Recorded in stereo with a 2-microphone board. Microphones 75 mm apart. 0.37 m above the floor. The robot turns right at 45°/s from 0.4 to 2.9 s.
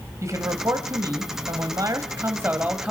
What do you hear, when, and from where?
0.2 s a man speaking: 125° right, 1.6 m; by 2.9 s 15° right, 1.6 m